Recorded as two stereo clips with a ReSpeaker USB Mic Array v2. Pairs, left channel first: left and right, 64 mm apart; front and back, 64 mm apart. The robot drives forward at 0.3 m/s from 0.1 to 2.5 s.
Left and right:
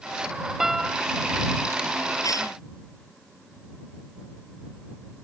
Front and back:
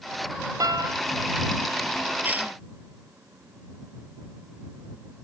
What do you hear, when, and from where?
0.6 s a piano: 175° right
2.2 s a cough: 115° left